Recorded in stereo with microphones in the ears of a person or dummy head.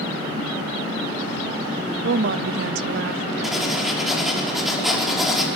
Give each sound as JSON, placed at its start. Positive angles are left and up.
{"t": 2.0, "sound": "a woman speaking", "side_deg": -70, "distance_m": 0.6}
{"t": 3.4, "sound": "writing", "side_deg": 0, "distance_m": 5.0}